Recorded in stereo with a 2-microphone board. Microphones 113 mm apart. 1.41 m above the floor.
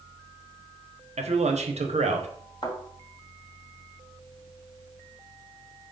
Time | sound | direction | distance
1.2 | a man speaking | 80° right | 0.7 m
2.6 | a thud | 45° left (ahead or behind) | 1.6 m